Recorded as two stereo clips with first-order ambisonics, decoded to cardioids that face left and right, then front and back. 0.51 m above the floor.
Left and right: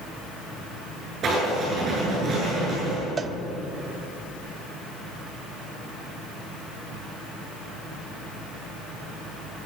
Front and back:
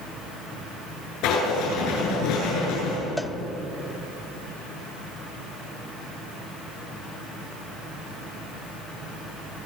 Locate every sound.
1.2 s writing: 30° right, 9 m
3.2 s a cowbell: 80° right, 0.5 m